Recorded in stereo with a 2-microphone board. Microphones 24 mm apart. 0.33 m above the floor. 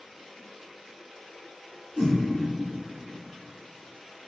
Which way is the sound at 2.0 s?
65° right (ahead or behind).